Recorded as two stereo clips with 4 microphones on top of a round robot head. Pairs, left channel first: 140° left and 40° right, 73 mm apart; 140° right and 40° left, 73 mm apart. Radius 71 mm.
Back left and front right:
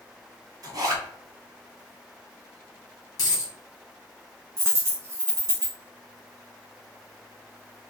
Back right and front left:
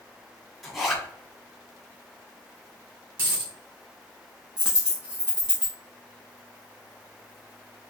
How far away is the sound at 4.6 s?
About 0.5 m.